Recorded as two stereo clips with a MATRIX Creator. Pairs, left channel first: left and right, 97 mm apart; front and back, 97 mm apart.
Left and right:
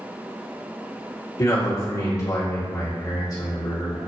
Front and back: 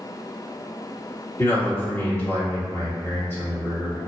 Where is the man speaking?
55° left, 1.7 m.